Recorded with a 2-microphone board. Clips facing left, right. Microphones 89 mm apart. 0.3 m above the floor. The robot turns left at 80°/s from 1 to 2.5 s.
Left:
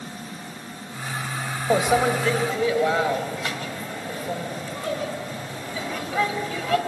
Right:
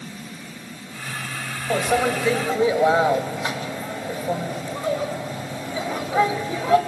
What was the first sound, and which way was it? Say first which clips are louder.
A microwave: left 1 dB; 25° left.